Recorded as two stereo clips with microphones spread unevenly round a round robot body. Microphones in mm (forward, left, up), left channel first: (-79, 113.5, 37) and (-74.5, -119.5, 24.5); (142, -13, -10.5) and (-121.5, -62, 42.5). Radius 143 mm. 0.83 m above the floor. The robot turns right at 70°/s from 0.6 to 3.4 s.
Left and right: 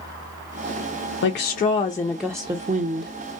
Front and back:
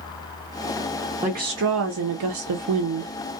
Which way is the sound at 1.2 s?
115° left.